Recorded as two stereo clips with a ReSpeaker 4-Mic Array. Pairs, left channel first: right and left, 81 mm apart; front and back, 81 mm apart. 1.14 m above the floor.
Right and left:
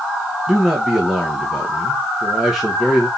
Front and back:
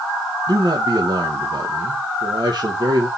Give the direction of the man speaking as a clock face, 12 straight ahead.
6 o'clock.